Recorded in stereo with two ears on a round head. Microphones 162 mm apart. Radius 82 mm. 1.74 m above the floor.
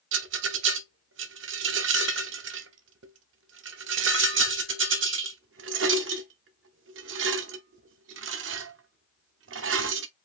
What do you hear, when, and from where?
0.1 s a rattle: 80° right, 0.8 m